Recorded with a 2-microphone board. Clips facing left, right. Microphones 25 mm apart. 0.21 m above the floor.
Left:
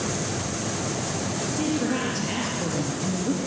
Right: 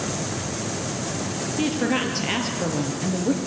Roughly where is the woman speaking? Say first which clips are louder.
Right 3 dB; right.